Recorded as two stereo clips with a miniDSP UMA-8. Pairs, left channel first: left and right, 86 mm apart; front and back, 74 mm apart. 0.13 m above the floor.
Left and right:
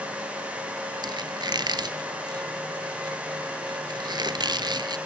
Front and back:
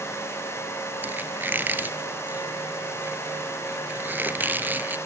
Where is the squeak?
115° right, 1.2 m.